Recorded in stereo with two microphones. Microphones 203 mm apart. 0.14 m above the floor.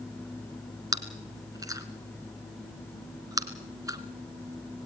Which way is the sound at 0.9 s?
15° right (ahead or behind).